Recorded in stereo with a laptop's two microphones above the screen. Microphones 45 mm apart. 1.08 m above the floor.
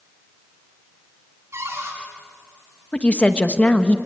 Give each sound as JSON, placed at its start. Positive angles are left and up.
{"t": 1.5, "sound": "a cupboard door", "side_deg": -85, "distance_m": 9.0}
{"t": 2.9, "sound": "a woman speaking", "side_deg": 30, "distance_m": 1.1}